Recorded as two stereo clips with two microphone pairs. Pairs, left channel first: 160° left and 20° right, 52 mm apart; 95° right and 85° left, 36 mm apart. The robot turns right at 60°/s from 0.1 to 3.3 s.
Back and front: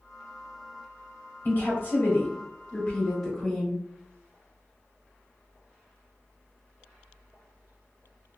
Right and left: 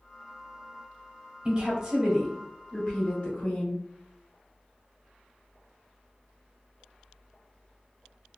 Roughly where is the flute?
I don't hear a flute.